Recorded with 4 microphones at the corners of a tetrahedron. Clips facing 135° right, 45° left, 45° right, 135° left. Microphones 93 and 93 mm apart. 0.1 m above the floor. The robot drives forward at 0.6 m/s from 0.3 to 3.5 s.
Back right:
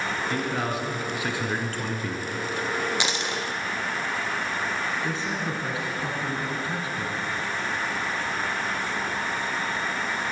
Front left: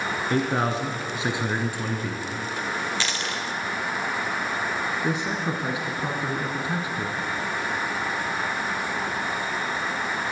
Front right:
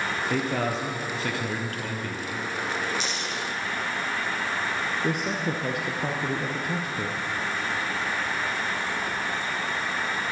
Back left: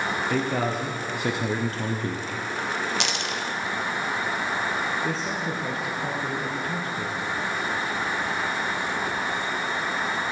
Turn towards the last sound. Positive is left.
turn(degrees=0)